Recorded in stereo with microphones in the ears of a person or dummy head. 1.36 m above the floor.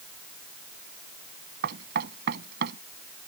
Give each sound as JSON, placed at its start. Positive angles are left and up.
{"t": 1.6, "sound": "knocking", "side_deg": -60}